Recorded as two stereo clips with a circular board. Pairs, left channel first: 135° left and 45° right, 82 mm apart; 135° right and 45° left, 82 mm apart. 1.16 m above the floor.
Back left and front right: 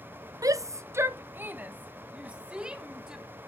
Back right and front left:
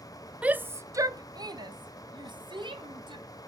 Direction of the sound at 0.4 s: 25° right.